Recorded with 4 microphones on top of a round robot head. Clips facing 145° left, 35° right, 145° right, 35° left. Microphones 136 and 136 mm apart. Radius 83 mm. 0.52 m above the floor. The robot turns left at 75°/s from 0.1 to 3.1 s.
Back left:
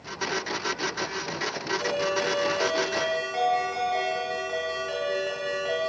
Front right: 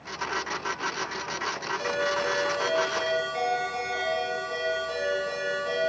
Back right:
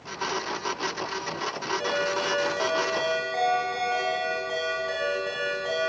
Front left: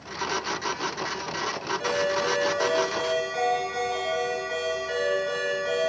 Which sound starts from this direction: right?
A ringtone, at 1.8 s.